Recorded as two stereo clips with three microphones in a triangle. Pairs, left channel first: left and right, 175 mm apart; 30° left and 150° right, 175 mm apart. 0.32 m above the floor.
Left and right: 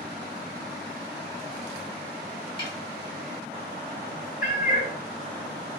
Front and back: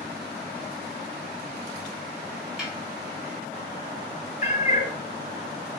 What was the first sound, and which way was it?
A snare drum, 125° left.